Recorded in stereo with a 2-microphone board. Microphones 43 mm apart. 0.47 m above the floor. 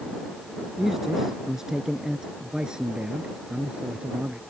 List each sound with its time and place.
0.8 s a man speaking: 5° right (ahead or behind); by 4.4 s 30° right (ahead or behind)